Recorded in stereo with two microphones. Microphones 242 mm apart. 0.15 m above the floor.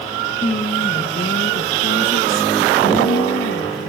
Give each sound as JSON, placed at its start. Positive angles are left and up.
{"t": 0.4, "sound": "a woman speaking", "side_deg": 30, "distance_m": 1.2}